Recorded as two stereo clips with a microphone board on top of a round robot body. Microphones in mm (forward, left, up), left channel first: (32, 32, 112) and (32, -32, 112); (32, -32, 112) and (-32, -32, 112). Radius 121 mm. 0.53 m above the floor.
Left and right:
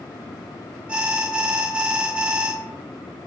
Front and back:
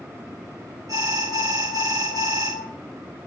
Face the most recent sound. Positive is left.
turn(degrees=-160)